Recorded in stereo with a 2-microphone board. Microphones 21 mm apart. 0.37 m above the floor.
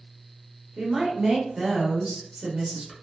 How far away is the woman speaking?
About 0.9 m.